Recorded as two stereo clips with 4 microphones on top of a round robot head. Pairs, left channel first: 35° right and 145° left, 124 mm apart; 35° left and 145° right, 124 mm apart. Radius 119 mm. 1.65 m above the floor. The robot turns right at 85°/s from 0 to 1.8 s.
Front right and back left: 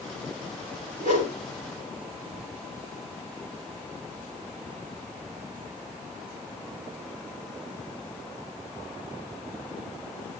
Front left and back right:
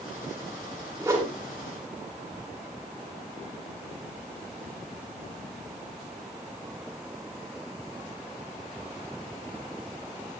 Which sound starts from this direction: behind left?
A whoosh, at 1.0 s.